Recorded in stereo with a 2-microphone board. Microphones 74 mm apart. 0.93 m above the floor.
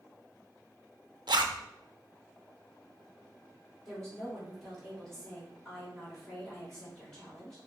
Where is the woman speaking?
5° left (ahead or behind), 2 m.